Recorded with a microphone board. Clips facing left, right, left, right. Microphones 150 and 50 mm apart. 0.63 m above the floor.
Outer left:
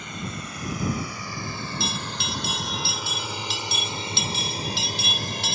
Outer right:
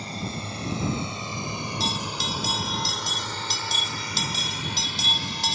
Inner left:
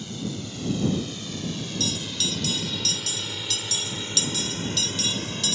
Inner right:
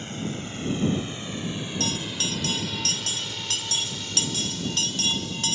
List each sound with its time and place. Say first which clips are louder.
0.0 s a drone: outer right 2 dB, inner right 1 dB; 35° right (ahead or behind); by 5.5 s 50° left (ahead or behind)
1.8 s a bell: outer right 1 dB, inner right 1 dB; 40° right (ahead or behind)